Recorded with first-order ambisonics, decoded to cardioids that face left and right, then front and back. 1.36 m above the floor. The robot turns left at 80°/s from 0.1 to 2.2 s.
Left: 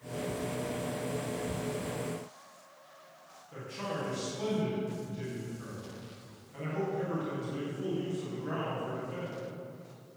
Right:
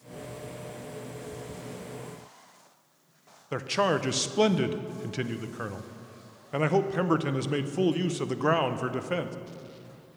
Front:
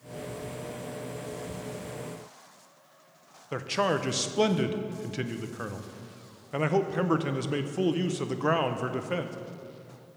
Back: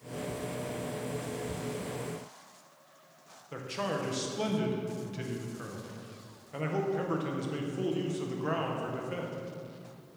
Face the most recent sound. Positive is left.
turn(degrees=-60)